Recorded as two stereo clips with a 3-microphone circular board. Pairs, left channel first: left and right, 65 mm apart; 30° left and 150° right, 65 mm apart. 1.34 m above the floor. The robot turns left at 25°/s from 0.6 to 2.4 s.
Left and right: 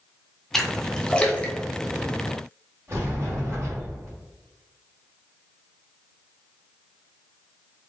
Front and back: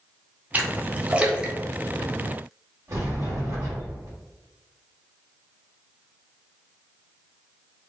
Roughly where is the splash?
Behind.